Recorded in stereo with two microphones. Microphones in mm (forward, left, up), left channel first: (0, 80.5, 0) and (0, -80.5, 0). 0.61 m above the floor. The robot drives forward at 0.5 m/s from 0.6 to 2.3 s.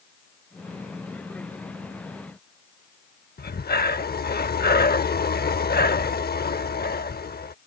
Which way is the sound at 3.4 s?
75° left (ahead or behind).